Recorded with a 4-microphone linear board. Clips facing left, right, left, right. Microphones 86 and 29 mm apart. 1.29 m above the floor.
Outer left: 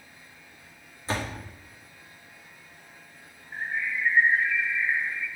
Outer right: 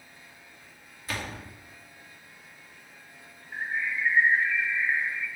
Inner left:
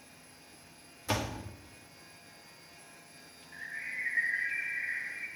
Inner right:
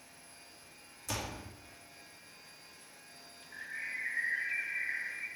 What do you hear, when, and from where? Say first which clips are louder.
1.1 s a door slam: outer left 4 dB, inner left 6 dB; 30° left (ahead or behind), 2 m
3.5 s a bird: even, inner left 1 dB; 5° right (ahead or behind), 2 m